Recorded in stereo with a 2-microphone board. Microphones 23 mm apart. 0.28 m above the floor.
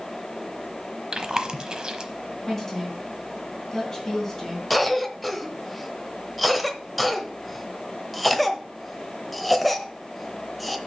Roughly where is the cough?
Centre.